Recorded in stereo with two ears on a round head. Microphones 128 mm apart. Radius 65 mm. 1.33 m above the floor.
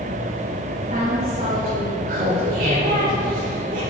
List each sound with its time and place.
0.7 s a woman speaking: 50° right (ahead or behind), 4 m
2.1 s laughter: 65° right (ahead or behind), 4 m